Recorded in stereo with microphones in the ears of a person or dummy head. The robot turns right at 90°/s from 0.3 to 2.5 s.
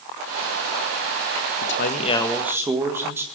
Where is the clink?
No clink in this recording.